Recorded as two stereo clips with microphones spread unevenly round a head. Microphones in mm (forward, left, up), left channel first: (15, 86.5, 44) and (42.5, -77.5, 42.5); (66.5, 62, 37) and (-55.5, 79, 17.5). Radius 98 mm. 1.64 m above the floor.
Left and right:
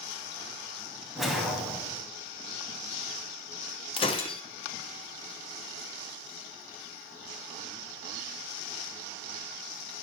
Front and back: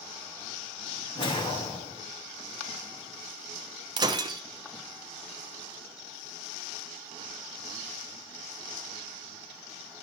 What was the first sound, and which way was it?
A whoosh, 10° left.